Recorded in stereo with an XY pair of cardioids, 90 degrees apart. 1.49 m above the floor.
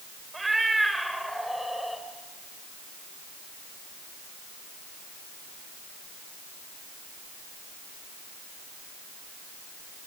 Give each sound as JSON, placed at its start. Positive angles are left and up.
{"t": 0.3, "sound": "a cat meowing", "azimuth_deg": -20, "distance_m": 3.0}